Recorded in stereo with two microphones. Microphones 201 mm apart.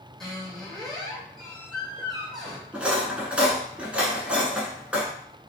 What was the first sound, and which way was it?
A squeak, centre (ahead or behind).